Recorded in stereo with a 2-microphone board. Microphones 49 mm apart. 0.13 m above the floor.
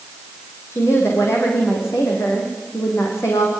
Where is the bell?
No bell in this recording.